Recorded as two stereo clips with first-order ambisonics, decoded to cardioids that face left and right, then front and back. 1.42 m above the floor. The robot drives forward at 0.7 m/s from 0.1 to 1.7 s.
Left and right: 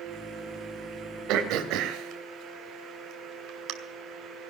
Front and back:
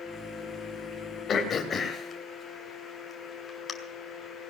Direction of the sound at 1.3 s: 60° right.